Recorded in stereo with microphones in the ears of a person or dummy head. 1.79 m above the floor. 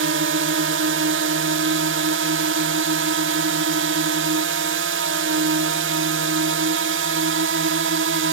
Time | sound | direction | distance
0.0 | a drone | 65° right (ahead or behind) | ?